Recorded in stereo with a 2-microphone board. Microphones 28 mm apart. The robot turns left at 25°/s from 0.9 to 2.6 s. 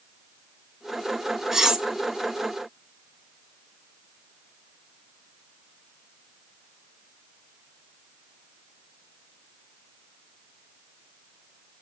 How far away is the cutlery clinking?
About 0.6 m.